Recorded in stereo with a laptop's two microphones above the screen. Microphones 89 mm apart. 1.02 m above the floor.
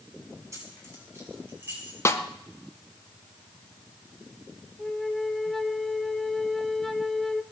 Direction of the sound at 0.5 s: 35° right (ahead or behind).